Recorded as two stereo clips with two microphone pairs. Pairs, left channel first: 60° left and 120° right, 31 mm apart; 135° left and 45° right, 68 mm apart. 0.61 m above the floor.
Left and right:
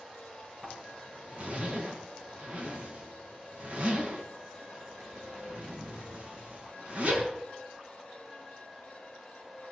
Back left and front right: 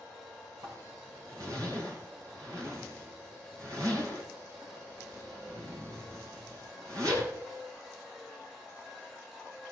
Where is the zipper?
75° right, 5.5 m.